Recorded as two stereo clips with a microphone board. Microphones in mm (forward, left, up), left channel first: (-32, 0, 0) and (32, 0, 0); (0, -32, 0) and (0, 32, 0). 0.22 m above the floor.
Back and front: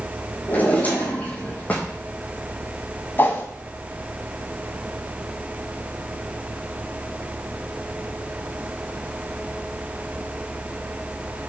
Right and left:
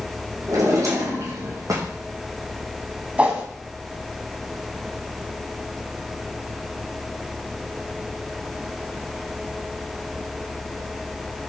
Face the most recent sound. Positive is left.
turn(degrees=150)